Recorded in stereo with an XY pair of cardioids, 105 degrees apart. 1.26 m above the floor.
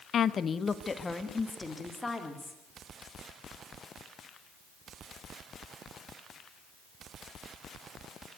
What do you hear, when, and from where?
0.1 s a woman speaking: 60° left, 1.0 m; by 2.6 s 15° left, 4 m